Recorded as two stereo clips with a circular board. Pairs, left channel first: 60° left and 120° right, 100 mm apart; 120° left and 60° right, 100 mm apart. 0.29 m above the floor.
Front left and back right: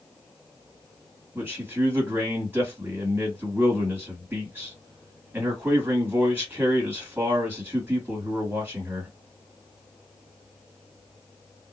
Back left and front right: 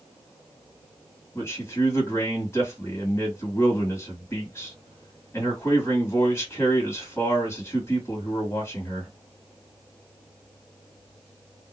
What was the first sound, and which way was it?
A man speaking, 175° left.